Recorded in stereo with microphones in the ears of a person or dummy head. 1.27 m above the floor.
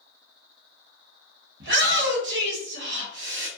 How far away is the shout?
About 1.5 m.